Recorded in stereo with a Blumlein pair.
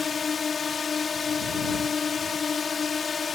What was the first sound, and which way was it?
A drone, 15° left.